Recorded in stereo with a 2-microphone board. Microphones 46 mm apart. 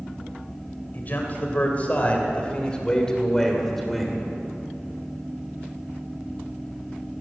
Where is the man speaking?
45° left (ahead or behind), 3 m; by 4.2 s centre (ahead or behind), 2.5 m.